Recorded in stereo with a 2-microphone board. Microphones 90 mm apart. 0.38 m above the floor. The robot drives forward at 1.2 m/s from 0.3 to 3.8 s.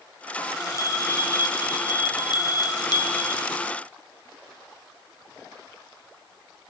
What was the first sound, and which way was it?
A bell, 35° left (ahead or behind).